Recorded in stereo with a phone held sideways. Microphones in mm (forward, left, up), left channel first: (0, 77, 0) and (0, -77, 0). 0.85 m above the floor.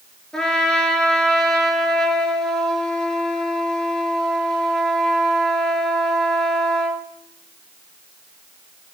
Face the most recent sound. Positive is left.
turn(degrees=5)  # may be behind; listen again after turning